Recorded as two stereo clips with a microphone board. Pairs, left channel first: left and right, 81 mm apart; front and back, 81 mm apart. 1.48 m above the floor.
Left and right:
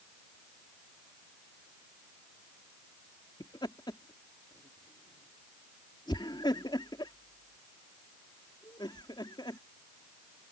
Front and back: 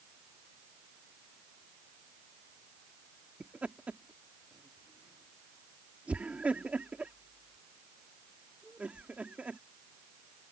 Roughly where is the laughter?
Left.